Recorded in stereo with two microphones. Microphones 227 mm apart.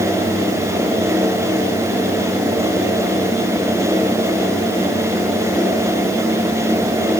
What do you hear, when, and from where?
Only background noise.